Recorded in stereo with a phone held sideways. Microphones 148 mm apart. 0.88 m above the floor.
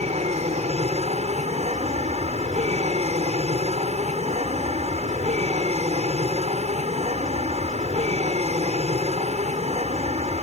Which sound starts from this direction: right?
An aircraft, at 0.0 s.